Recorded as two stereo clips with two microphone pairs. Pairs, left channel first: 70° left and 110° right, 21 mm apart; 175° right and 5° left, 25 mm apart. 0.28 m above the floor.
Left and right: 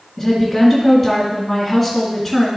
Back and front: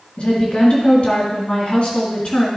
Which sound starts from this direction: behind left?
A woman speaking, at 0.2 s.